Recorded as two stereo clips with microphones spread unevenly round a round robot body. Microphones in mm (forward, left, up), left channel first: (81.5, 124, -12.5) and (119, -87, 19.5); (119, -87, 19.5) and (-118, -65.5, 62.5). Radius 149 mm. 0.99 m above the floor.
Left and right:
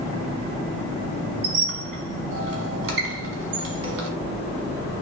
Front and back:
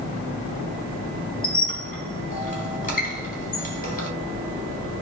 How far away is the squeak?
About 1.3 m.